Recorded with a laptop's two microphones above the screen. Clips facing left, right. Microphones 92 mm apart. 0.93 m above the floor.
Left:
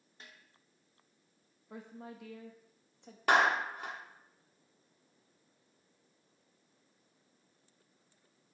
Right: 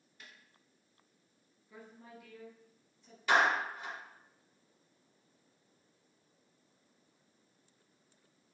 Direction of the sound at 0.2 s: 35° left (ahead or behind).